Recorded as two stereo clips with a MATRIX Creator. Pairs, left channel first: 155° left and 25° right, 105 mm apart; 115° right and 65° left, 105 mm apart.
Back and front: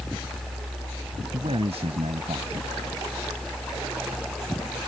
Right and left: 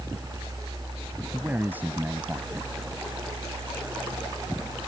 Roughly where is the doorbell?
No doorbell in this recording.